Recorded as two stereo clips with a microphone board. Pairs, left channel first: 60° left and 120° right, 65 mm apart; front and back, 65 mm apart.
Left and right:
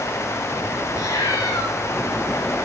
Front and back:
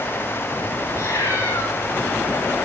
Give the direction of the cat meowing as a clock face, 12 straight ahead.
10 o'clock.